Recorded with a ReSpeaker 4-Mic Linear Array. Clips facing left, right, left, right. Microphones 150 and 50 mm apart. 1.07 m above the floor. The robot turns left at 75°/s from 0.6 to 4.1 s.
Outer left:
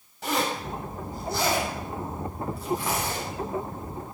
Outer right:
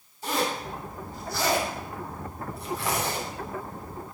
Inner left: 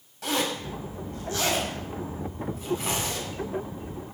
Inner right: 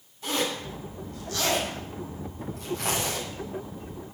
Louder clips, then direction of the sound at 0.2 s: Outer left 1 dB, inner left 1 dB; 75° left (ahead or behind).